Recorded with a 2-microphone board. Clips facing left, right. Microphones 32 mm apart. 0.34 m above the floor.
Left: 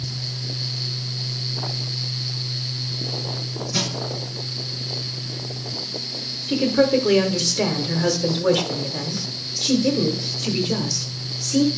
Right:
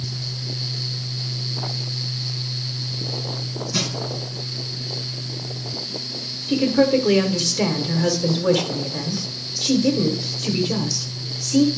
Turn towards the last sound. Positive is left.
turn(degrees=5)  # may be behind; listen again after turning